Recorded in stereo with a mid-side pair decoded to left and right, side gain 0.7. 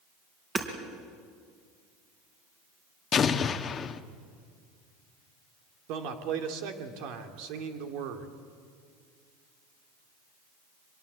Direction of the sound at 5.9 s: 65° right.